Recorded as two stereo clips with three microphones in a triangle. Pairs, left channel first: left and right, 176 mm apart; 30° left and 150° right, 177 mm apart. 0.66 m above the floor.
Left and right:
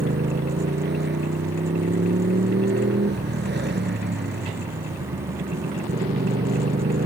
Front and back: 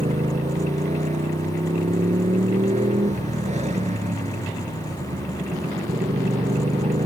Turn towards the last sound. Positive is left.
turn(degrees=-100)